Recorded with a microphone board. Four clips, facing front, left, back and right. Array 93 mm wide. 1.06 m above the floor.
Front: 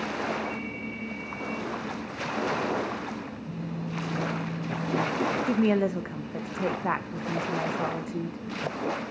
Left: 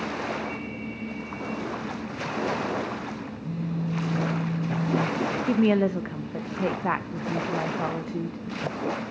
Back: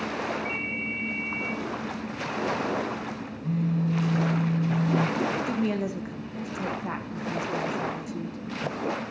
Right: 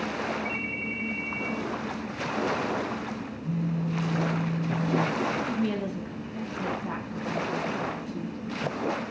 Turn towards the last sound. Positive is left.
turn(degrees=60)